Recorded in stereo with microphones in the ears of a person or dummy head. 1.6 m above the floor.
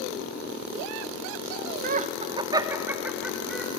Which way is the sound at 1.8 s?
50° right (ahead or behind).